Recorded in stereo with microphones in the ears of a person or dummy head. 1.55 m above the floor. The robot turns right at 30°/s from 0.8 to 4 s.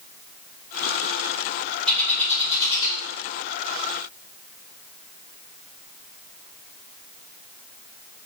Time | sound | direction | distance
1.9 | a bird | 5° left (ahead or behind) | 1.0 m